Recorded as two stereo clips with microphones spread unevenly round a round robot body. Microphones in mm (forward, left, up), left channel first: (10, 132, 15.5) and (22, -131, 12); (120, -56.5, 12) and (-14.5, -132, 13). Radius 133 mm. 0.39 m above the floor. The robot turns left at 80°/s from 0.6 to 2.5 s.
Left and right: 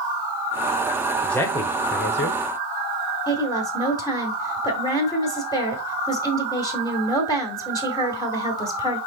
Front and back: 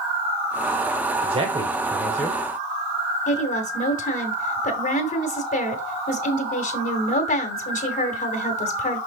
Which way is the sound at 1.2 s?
175° right.